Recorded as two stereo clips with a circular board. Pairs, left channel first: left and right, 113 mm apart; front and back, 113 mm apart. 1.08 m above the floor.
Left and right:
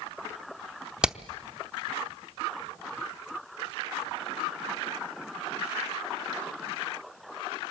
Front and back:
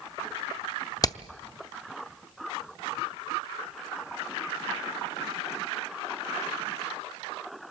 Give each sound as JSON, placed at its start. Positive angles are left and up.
{"t": 1.0, "sound": "hammering", "azimuth_deg": -15, "distance_m": 0.7}